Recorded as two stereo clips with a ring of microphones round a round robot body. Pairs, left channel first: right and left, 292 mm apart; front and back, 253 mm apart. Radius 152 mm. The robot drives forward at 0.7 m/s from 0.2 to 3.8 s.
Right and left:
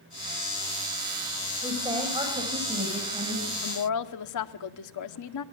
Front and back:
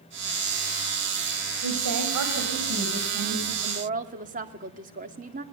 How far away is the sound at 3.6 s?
About 2.0 m.